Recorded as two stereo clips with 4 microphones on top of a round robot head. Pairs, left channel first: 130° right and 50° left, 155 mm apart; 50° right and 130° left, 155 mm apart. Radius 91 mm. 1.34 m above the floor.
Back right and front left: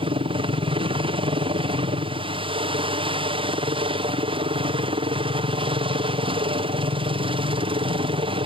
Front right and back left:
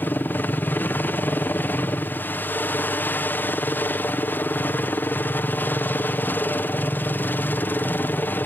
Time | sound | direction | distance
0.0 | a helicopter | 20° left | ?